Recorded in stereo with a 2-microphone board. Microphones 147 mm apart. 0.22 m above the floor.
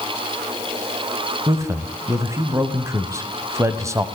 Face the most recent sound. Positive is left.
turn(degrees=-20)  # may be behind; listen again after turning